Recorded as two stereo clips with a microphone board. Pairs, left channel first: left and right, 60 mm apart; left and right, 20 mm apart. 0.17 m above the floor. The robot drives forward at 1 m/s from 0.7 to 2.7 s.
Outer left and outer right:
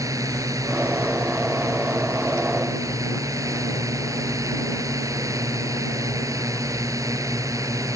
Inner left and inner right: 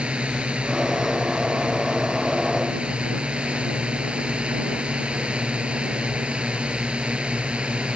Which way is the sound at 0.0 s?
65° right (ahead or behind).